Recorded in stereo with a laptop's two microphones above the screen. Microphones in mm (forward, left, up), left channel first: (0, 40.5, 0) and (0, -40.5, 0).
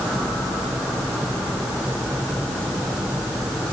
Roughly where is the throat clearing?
No throat clearing in this recording.